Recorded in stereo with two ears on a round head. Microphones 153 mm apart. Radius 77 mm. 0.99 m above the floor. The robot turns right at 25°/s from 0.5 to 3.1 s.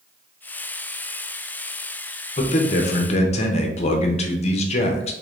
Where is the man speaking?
40° left (ahead or behind), 0.6 m.